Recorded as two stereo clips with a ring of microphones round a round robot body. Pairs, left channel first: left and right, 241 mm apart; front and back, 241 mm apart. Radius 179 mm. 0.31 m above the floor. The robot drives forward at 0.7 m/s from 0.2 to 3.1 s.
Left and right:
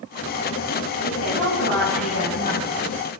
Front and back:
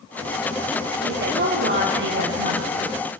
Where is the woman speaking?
135° left, 8.5 m; by 2.9 s 140° left, 9.5 m.